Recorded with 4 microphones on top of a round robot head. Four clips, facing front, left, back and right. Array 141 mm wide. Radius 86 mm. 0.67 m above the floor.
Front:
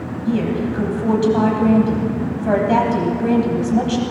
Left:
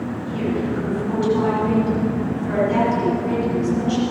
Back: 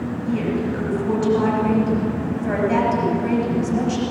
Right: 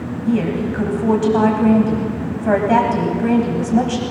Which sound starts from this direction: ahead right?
A woman speaking, at 0.2 s.